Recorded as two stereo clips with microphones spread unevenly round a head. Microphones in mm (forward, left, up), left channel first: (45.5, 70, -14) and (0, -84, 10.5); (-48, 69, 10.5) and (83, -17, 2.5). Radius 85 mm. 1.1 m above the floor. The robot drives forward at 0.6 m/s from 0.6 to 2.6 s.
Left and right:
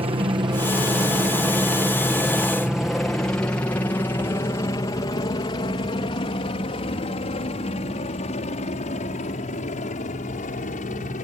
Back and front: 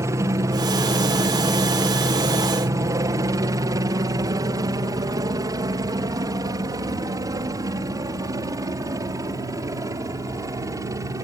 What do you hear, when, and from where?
0.0 s a helicopter: 75° right; by 11.2 s 35° left